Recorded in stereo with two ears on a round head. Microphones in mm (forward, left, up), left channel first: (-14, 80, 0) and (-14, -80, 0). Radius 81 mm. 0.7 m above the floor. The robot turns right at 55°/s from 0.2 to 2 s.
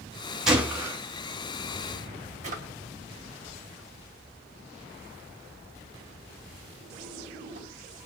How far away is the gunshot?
About 1.5 m.